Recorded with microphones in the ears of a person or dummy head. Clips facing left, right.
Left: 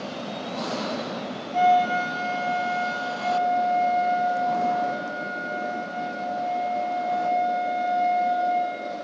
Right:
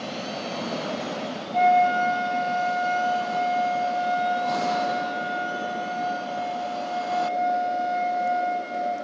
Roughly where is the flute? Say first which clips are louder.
Right 1 dB; centre.